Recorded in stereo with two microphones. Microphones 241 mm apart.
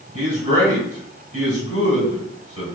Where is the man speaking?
30° left (ahead or behind), 1.8 m.